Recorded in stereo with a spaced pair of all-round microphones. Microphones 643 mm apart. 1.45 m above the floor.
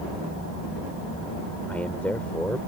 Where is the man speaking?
Centre (ahead or behind).